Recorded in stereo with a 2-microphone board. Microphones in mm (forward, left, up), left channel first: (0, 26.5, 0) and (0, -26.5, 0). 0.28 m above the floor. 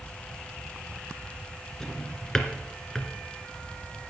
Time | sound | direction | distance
1.8 | a drawer | 10° left (ahead or behind) | 1.7 m